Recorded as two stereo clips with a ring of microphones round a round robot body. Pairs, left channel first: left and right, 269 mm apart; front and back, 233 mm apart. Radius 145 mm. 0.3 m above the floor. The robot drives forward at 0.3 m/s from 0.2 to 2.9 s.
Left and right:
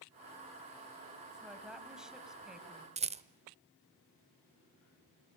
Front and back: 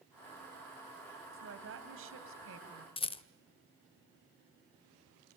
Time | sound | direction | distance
1.3 | a woman speaking | 175° right | 2.5 m
3.0 | a rattle | 45° right | 0.9 m